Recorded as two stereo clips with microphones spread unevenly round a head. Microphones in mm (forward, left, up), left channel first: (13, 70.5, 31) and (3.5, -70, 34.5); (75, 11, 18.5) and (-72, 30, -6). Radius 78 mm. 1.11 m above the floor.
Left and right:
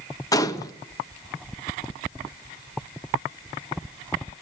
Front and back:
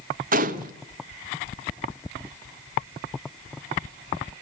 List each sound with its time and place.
0.3 s a gunshot: 150° left, 1.4 m